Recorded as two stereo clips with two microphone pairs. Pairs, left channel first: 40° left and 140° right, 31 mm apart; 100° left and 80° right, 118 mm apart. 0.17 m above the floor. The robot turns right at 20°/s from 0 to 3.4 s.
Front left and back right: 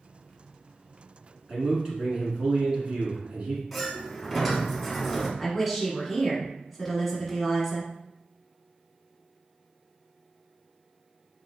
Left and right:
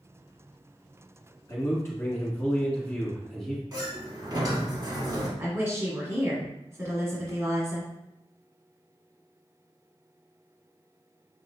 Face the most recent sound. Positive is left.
turn(degrees=-55)